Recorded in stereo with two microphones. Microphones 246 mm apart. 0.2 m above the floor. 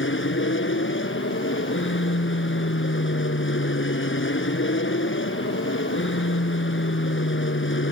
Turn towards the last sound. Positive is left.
turn(degrees=55)  # may be behind; listen again after turning